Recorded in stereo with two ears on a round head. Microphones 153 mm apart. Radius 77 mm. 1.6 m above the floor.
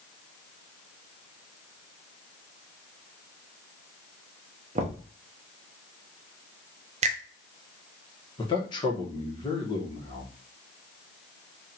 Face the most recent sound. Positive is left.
turn(degrees=25)  # may be behind; listen again after turning